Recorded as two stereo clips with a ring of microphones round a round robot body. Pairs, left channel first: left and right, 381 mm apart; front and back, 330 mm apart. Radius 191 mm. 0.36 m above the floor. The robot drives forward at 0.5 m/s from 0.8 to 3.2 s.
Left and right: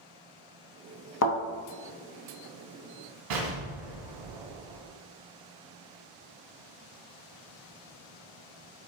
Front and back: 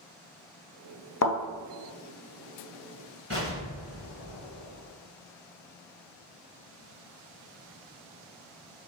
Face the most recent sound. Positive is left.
turn(degrees=-125)